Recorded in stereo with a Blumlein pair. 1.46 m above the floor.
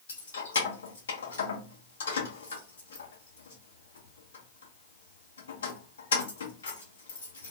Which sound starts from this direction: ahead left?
Keys jangling, at 0.1 s.